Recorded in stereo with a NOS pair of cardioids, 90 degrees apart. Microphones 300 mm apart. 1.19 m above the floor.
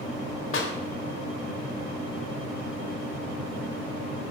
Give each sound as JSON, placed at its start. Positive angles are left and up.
{"t": 0.5, "sound": "a clap", "azimuth_deg": 45, "distance_m": 4.0}